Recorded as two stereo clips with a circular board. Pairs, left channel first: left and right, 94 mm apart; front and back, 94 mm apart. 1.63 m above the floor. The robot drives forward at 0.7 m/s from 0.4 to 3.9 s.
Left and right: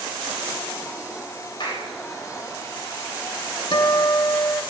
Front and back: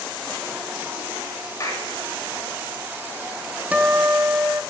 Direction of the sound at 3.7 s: 105° left.